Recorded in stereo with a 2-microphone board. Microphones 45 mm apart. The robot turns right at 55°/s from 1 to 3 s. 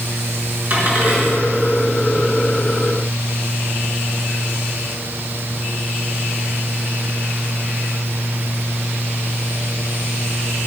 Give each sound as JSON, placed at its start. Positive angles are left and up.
{"t": 0.7, "sound": "a dropped coin", "side_deg": -45, "distance_m": 4.0}